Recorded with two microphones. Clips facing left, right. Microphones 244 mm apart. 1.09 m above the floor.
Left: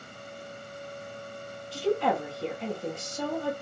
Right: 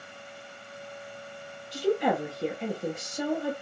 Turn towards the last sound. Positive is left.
turn(degrees=-20)  # may be behind; listen again after turning